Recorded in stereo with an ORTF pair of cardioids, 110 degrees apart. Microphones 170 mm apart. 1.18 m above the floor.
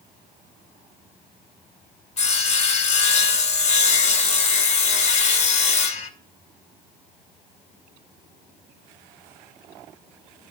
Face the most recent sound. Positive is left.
turn(degrees=45)